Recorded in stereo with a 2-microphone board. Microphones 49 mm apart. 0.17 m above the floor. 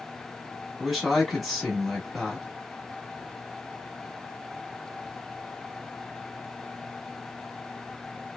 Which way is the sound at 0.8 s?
Centre (ahead or behind).